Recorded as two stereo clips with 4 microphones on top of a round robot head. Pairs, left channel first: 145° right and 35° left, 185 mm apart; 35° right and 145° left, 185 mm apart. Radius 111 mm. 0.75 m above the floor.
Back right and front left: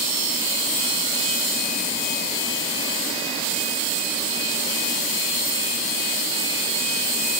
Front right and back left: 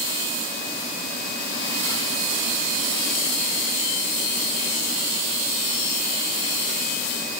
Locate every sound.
Only background noise.